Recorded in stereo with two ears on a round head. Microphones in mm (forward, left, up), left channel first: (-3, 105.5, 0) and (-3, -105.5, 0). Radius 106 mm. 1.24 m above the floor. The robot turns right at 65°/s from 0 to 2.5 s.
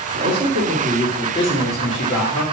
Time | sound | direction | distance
0.1 | a man speaking | 60° right | 2.5 m